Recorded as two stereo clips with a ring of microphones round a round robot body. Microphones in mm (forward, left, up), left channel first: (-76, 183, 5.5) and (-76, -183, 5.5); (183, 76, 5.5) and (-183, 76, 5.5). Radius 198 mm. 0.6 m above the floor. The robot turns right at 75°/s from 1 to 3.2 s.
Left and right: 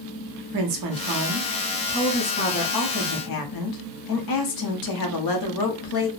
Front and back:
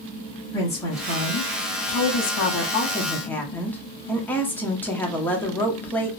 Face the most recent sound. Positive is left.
turn(degrees=85)